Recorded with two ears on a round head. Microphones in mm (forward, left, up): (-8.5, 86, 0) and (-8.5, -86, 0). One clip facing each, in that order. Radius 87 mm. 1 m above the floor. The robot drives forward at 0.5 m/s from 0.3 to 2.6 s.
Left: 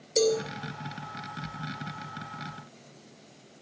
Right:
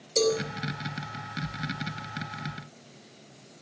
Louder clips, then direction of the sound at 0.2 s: Left 1 dB; 10° left (ahead or behind).